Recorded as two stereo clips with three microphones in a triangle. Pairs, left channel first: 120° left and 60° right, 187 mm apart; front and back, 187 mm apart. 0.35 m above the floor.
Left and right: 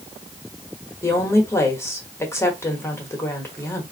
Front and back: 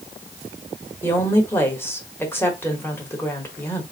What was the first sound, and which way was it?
A woman speaking, 60° left.